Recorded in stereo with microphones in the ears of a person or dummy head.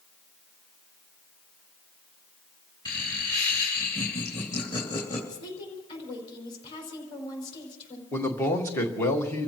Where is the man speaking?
20° left (ahead or behind), 1.7 m.